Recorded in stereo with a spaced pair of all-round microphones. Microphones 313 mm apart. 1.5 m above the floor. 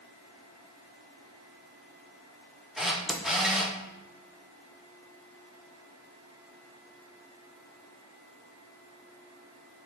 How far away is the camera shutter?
About 1.0 m.